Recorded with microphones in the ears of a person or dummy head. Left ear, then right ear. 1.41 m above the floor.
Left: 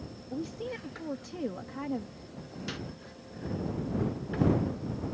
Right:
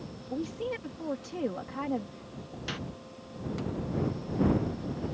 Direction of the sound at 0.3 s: 20° right (ahead or behind).